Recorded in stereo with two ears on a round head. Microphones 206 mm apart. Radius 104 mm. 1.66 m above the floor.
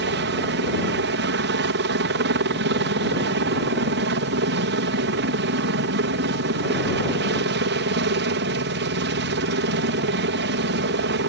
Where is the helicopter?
50° right (ahead or behind).